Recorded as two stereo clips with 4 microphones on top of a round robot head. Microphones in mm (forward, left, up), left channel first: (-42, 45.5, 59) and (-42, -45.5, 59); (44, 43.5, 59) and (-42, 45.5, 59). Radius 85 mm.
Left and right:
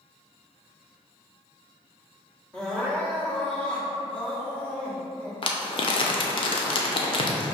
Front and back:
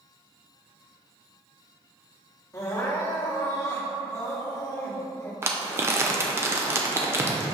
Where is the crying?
20° left, 1.1 m.